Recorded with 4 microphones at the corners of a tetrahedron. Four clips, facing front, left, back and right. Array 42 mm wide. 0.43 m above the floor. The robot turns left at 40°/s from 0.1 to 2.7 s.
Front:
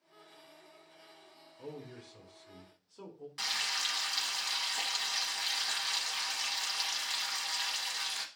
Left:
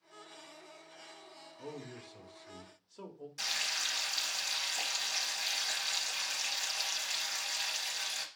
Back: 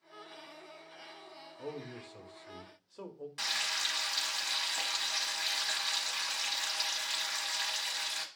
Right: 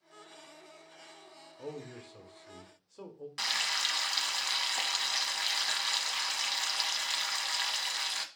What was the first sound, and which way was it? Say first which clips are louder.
A man speaking: right 3 dB, back 3 dB; 120° right.